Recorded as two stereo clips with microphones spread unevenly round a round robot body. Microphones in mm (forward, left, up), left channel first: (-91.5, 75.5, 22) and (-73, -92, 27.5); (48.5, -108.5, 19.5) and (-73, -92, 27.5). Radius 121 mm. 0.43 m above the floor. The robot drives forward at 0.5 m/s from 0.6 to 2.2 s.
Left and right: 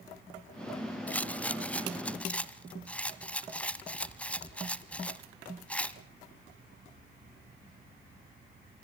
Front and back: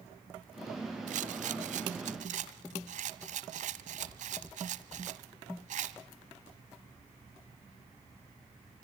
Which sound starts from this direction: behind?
A rattle, at 1.1 s.